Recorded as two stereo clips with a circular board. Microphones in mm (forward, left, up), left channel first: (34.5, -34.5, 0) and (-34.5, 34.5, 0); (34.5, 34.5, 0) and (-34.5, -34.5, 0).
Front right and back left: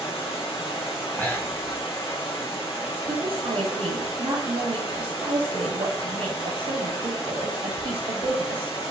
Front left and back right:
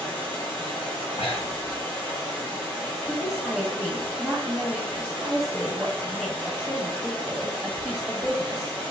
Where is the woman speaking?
135° left, 1.1 m.